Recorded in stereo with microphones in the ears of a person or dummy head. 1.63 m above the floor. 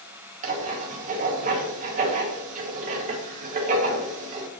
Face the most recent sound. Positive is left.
turn(degrees=-40)  # may be behind; listen again after turning